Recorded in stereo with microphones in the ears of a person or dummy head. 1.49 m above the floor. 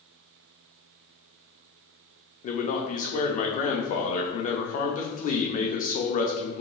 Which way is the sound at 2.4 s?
40° left (ahead or behind).